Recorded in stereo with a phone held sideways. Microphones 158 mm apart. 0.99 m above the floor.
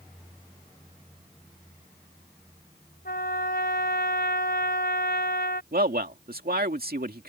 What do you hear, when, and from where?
3.0 s a trumpet: 90° left
5.7 s a man speaking: 70° right (ahead or behind)